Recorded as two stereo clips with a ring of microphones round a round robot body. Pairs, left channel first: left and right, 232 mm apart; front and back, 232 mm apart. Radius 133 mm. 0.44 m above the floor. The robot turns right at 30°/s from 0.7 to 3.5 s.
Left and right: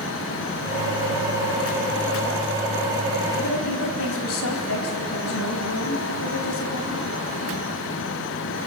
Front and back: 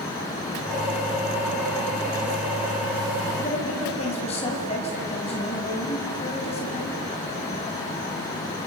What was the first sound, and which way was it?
A woman speaking, 65° left.